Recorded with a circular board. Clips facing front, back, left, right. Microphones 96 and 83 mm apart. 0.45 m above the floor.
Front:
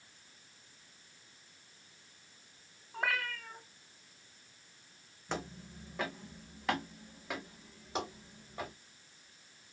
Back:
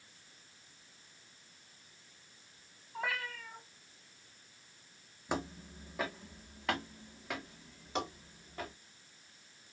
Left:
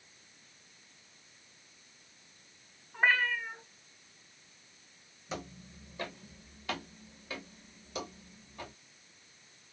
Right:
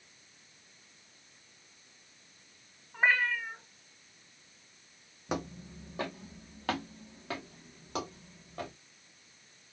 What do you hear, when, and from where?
2.9 s a cat meowing: 5° right, 1.3 m
5.3 s footsteps: 105° right, 1.0 m; by 8.7 s 80° right, 3 m